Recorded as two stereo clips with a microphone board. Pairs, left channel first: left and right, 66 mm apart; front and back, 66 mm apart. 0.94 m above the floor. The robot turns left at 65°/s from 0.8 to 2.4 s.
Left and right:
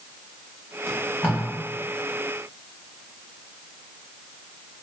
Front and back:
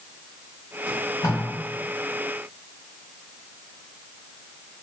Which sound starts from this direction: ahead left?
Tape being pulled, at 0.9 s.